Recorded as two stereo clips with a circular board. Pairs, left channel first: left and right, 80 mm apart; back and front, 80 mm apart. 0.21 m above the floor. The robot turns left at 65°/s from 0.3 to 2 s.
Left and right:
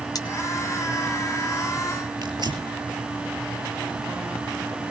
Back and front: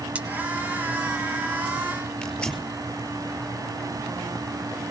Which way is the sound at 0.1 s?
65° left.